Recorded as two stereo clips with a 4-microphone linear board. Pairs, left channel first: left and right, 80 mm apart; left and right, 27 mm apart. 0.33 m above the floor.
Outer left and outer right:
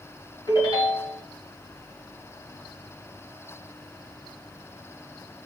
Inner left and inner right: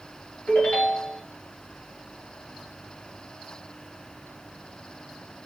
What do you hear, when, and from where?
0.5 s a ringtone: 65° left (ahead or behind), 1.3 m